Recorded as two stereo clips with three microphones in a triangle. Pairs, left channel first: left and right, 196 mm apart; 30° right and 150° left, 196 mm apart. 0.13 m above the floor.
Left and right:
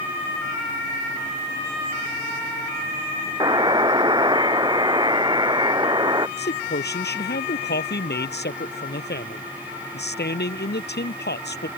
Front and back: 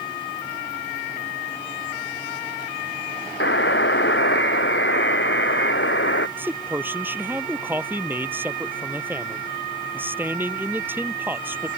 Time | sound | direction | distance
3.4 | a buzzer | 20° right | ?
6.4 | a man speaking | 70° left | ?